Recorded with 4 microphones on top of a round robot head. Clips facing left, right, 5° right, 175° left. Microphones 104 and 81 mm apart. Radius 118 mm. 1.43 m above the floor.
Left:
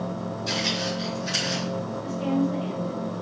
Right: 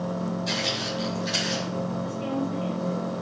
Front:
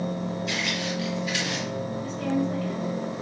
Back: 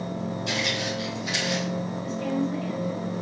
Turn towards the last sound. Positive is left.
turn(degrees=30)